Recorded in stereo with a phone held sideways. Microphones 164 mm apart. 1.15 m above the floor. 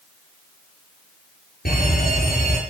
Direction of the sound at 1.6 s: 75° left (ahead or behind).